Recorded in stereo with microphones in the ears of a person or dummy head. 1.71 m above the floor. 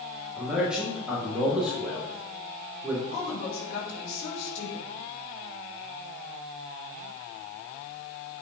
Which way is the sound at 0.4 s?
5° right (ahead or behind).